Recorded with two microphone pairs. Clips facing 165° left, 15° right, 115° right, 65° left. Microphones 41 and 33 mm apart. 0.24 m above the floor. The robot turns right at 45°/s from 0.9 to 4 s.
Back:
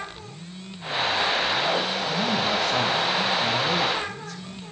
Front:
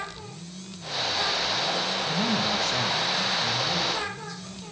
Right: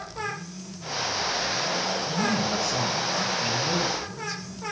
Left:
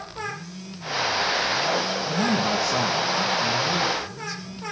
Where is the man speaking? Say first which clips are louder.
Back 1 dB, left 4 dB; 65° left, 2.5 m; by 4.6 s 155° left, 2.5 m.